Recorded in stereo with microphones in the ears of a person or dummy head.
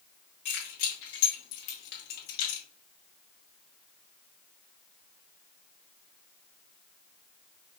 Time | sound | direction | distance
0.5 | keys jangling | 65° left (ahead or behind) | 2 m